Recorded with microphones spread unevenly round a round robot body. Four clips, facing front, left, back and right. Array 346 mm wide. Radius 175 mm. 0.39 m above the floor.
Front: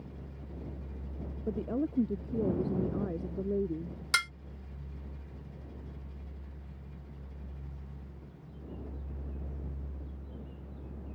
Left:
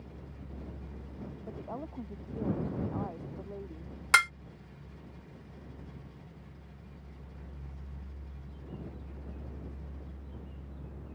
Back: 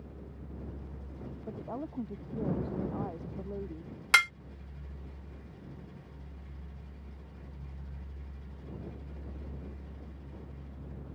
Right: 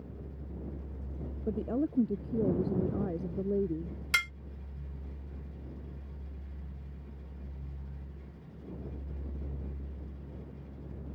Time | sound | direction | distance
1.5 | a woman speaking | 55° right | ?
4.1 | dishes clattering | 125° left | ?